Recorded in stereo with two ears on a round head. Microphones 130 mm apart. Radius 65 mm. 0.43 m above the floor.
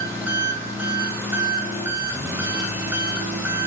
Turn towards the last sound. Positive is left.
turn(degrees=-15)  # may be behind; listen again after turning